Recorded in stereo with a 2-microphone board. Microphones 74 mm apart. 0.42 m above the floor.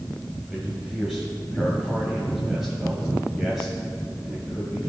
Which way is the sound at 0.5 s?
10° right (ahead or behind).